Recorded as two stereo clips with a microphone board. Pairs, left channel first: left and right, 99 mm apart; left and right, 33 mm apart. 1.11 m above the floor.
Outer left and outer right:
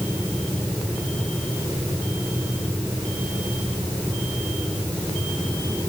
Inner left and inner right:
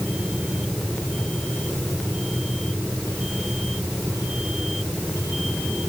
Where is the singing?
No singing in this recording.